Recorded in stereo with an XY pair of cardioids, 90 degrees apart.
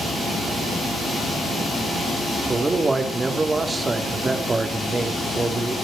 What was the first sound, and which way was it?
A man speaking, 25° right.